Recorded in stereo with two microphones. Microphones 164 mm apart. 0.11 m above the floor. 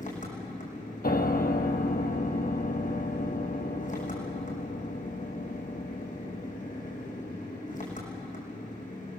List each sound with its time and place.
0.0 s an engine running: 55° left (ahead or behind), 5.5 m
1.0 s a piano: 70° left (ahead or behind), 1.6 m